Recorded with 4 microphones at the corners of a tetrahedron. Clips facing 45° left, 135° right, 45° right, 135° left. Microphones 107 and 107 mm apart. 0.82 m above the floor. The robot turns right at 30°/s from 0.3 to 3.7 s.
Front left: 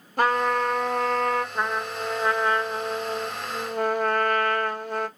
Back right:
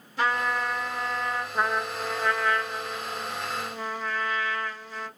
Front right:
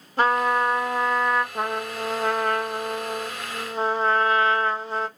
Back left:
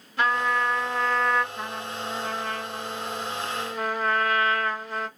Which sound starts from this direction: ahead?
A trumpet, at 0.2 s.